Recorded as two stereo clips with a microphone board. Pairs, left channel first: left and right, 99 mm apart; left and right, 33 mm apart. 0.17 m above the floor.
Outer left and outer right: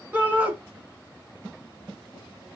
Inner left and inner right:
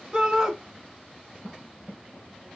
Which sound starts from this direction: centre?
A shout, at 0.1 s.